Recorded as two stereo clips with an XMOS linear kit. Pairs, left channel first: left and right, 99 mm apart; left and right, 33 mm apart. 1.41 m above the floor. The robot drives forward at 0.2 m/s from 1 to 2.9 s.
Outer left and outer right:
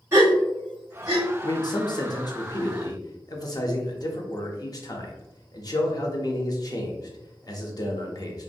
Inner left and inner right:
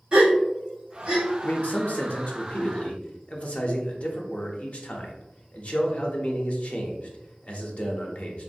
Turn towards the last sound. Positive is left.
turn(degrees=45)  # may be behind; listen again after turning